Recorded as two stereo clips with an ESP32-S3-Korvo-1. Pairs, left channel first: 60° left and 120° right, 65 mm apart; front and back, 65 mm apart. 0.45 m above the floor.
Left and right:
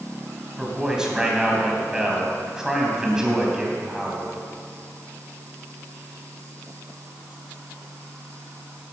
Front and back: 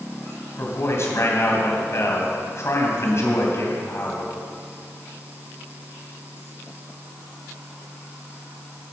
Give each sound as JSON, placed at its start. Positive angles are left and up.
{"t": 0.6, "sound": "a man speaking", "azimuth_deg": -40, "distance_m": 3.0}